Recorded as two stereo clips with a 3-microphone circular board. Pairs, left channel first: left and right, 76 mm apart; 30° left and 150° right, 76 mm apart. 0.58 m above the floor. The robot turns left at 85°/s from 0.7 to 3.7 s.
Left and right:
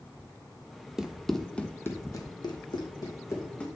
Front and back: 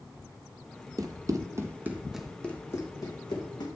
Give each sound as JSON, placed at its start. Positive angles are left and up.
{"t": 1.0, "sound": "running footsteps", "azimuth_deg": -170, "distance_m": 0.9}